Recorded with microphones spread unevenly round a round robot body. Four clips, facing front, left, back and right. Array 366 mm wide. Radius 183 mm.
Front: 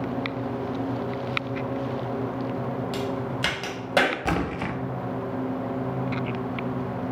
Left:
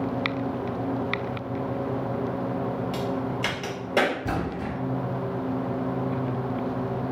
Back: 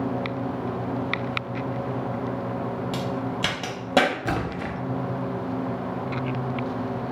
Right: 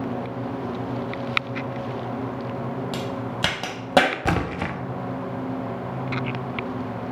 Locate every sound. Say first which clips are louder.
2.9 s a crack: left 1 dB, back 1 dB; 115° right, 0.7 m
4.2 s a splash: right 4 dB, front 1 dB; 80° right, 0.5 m